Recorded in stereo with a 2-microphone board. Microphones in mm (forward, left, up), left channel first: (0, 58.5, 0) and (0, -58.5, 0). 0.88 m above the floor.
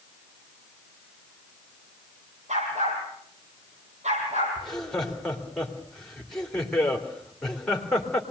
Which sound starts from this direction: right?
A dog barking, at 2.5 s.